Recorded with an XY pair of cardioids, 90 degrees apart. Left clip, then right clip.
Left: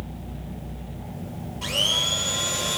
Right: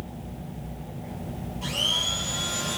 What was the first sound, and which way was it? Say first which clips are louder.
A blender: left 3 dB; 55° left.